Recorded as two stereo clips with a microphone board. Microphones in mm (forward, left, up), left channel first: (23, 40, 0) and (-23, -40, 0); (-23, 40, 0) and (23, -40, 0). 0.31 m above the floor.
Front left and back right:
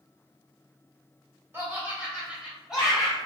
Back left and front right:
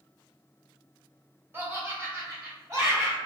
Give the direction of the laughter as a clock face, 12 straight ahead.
3 o'clock.